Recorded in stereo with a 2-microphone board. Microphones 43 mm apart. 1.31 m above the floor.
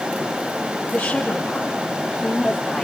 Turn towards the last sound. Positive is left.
turn(degrees=10)  # may be behind; listen again after turning